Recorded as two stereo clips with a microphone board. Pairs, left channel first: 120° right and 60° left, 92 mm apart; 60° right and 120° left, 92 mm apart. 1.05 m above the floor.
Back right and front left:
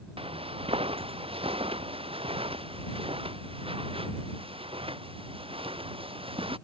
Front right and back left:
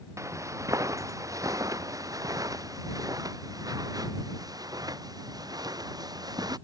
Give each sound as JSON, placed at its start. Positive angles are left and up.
{"t": 0.2, "sound": "footsteps", "azimuth_deg": 65}